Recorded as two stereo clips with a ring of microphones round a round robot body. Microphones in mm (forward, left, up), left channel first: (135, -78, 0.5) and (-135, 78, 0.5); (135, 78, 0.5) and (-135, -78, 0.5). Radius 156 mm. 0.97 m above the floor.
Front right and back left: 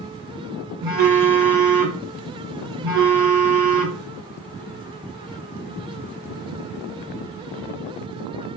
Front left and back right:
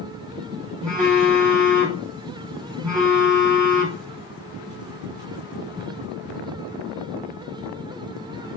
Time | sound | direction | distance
0.8 | a phone buzzing | 140° left | 1.6 m